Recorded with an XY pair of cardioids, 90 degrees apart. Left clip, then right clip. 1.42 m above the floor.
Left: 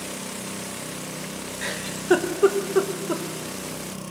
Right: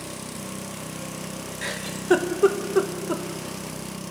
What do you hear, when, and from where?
1.6 s a giggle: 5° left, 1.4 m